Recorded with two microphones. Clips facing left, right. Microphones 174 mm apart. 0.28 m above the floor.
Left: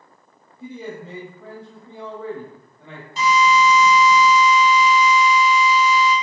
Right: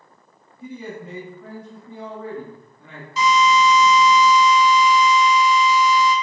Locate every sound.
0.6 s a man speaking: 30° left (ahead or behind), 1.1 m
3.2 s a drill: 55° left (ahead or behind), 0.9 m